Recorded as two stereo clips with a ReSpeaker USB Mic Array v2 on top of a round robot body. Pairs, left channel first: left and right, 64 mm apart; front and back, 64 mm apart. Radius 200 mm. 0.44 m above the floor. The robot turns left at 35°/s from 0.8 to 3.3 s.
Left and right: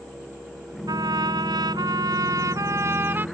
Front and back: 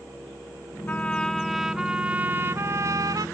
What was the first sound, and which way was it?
A trumpet, 70° right.